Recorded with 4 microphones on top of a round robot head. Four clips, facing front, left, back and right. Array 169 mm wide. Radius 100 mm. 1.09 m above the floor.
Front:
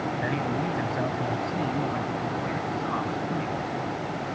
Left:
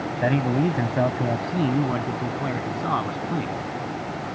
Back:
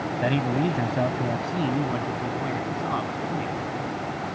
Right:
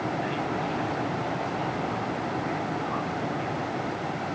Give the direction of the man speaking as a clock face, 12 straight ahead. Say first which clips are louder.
Left 7 dB, back 7 dB; 8 o'clock.